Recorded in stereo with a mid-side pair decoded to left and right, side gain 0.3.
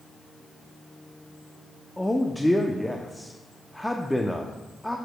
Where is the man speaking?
10° left, 0.7 m.